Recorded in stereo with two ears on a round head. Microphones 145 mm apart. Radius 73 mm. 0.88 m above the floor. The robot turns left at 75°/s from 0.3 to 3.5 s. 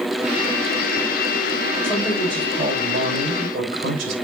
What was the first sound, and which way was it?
A man speaking, 5° left.